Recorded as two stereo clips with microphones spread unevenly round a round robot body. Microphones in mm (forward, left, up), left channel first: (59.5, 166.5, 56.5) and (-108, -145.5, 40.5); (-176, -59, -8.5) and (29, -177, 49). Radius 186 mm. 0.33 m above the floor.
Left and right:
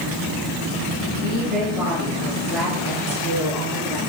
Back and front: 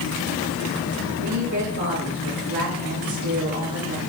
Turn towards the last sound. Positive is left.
turn(degrees=-30)